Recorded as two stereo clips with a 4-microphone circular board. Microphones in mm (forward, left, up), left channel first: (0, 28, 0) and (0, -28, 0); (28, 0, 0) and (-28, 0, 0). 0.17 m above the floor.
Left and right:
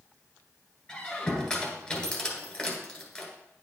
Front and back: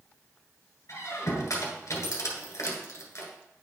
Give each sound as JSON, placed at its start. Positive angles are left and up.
{"t": 0.9, "sound": "a squeak", "azimuth_deg": 20, "distance_m": 1.6}